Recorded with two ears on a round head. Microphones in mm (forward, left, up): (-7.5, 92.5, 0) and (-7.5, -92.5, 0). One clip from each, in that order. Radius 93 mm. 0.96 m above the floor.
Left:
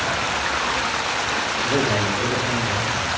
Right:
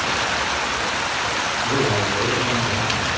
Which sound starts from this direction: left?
A man speaking, at 1.6 s.